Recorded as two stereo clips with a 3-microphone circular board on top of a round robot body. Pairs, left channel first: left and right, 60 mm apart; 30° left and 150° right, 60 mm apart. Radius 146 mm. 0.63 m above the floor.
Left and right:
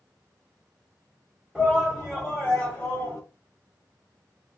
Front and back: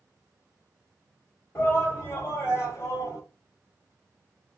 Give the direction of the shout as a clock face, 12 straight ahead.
12 o'clock.